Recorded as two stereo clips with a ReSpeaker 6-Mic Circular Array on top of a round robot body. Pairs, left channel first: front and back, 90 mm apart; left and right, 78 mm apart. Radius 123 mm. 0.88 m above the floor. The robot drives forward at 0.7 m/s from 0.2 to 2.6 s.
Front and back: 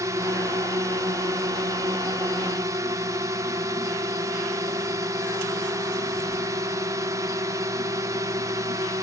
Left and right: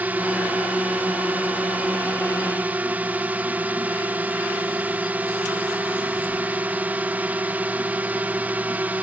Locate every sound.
0.0 s a drone: 150° right